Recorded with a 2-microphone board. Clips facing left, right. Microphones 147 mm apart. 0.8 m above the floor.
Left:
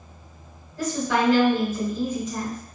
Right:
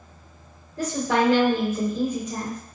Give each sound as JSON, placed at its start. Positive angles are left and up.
{"t": 0.8, "sound": "a woman speaking", "side_deg": -45, "distance_m": 1.4}